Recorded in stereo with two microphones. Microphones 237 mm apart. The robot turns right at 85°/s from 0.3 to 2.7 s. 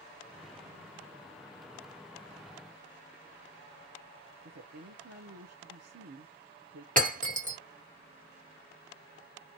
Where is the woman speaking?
85° right, 0.6 m.